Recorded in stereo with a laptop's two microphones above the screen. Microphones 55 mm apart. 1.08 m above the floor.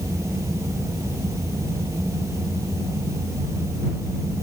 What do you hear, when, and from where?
0.0 s a fan: 65° right (ahead or behind)